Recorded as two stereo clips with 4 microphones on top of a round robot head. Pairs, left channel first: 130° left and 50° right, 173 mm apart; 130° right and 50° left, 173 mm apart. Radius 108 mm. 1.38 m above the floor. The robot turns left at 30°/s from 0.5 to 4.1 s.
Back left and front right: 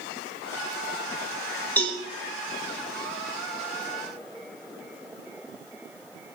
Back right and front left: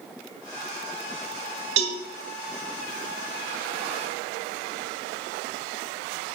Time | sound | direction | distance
1.8 | a cowbell | 55° left | 3 m